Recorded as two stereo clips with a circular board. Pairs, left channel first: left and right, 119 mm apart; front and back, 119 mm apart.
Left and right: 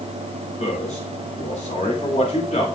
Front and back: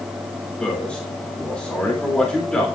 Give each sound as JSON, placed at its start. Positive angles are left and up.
{"t": 0.6, "sound": "a man speaking", "azimuth_deg": 80, "distance_m": 3.0}